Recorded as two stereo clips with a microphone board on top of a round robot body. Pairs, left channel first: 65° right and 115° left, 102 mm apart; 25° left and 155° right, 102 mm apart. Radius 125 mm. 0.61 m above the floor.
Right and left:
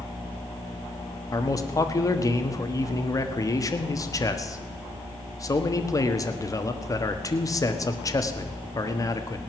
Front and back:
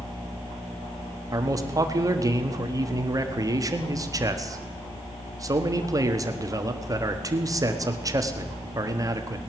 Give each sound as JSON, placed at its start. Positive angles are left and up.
{"t": 1.3, "sound": "a man speaking", "azimuth_deg": -115, "distance_m": 1.5}